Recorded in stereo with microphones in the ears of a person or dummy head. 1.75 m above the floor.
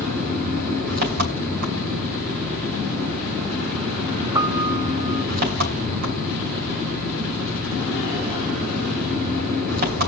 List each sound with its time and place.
0.0 s an engine running: 55° right (ahead or behind), 3.5 m
4.3 s a piano: 20° right (ahead or behind), 0.5 m